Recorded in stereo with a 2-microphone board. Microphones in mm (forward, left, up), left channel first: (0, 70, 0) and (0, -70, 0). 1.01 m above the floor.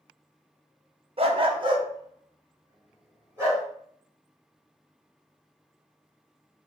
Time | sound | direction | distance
1.2 | a dog barking | 45° right (ahead or behind) | 0.6 m